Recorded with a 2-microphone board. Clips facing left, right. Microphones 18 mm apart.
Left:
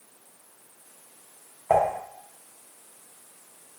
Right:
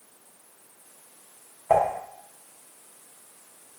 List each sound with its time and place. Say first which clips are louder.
1.7 s dishes clattering: even; centre (ahead or behind), 0.9 m